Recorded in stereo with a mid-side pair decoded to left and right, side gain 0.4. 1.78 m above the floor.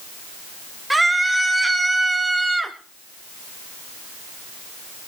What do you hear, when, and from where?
0.9 s a scream: 15° right, 7.5 m; by 2.8 s 20° right, 6.5 m